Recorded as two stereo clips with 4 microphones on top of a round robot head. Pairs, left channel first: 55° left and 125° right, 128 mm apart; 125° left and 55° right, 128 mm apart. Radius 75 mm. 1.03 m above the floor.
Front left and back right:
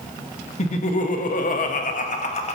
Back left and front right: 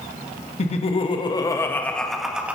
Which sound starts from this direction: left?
Laughter, at 0.6 s.